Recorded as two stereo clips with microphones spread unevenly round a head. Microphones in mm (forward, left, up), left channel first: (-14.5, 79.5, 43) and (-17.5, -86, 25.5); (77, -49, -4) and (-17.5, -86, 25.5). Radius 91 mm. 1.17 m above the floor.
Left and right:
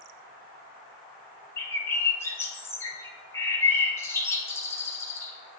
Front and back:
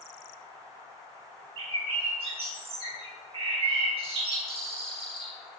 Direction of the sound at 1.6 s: 160° left.